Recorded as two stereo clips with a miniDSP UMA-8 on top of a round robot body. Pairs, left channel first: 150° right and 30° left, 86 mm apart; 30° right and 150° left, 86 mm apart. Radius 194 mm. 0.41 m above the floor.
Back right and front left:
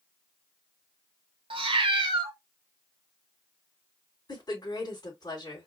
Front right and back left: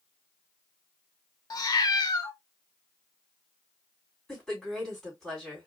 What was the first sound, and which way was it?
A cat meowing, 15° left.